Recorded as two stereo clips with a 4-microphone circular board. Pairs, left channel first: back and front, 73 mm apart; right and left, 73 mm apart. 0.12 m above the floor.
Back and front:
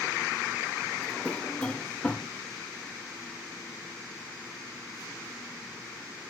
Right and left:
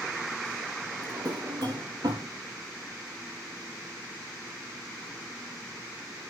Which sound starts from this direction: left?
A drawer, at 1.0 s.